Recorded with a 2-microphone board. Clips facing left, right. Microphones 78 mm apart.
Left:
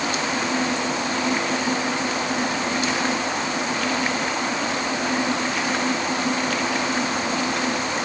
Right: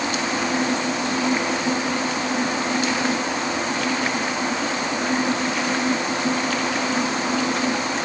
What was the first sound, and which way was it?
Only background noise.